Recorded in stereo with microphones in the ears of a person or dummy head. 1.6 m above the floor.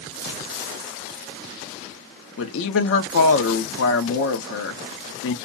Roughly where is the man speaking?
Left.